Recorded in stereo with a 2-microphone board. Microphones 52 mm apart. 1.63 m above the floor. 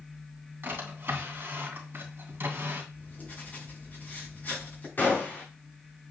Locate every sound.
0.6 s a drawer: 45° right (ahead or behind), 3 m
2.9 s writing: 30° left (ahead or behind), 5.5 m
5.0 s a gunshot: 35° left (ahead or behind), 3 m